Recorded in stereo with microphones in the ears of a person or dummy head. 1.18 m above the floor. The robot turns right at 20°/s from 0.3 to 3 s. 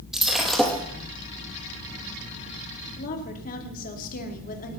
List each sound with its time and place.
0.1 s breaking glass: 10° right (ahead or behind), 3.5 m; by 0.8 s centre (ahead or behind), 3.5 m
3.0 s a woman speaking: 40° left (ahead or behind), 2.5 m